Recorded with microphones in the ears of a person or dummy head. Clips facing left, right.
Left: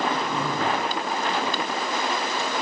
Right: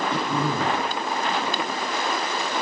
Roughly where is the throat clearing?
Right.